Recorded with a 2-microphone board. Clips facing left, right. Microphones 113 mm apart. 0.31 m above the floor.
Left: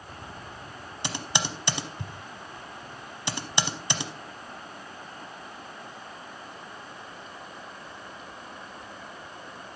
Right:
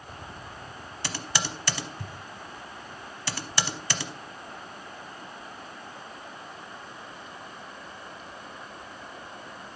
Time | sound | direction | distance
1.0 | typing on a keyboard | 20° left (ahead or behind) | 0.8 m